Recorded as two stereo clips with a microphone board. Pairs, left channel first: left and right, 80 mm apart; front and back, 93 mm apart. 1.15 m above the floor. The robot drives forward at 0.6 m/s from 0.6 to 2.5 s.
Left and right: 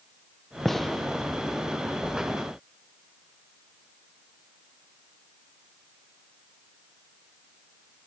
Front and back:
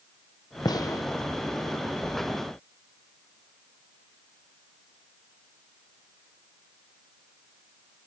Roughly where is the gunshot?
Ahead.